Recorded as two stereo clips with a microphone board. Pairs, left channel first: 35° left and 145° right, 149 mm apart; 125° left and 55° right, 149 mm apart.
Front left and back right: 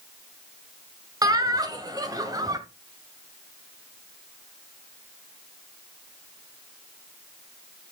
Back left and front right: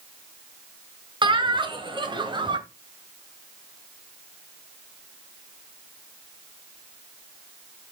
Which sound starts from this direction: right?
Laughter, at 1.2 s.